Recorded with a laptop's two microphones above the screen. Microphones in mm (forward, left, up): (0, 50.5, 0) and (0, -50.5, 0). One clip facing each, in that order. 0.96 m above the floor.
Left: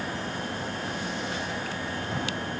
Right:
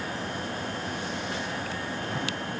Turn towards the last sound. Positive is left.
No sound to turn to.